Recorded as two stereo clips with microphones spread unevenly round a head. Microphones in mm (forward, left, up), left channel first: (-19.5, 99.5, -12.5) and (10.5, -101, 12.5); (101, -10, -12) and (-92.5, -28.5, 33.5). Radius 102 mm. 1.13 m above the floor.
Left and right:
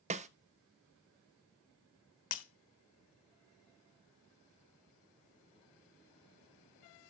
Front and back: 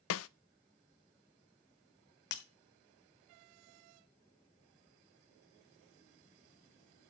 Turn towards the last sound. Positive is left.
turn(degrees=50)